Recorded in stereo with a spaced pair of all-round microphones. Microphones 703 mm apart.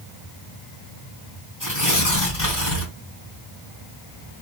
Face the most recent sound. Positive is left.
turn(degrees=30)  # may be behind; listen again after turning